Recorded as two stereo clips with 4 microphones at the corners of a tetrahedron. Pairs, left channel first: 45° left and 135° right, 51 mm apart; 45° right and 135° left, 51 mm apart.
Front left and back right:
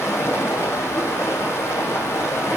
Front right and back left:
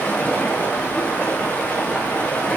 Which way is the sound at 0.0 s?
20° left.